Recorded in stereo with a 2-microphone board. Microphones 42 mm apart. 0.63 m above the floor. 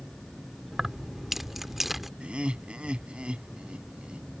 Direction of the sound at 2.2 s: 25° right (ahead or behind).